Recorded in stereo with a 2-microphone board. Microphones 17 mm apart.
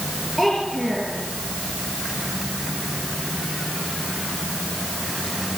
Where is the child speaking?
15° right (ahead or behind), 5.5 m.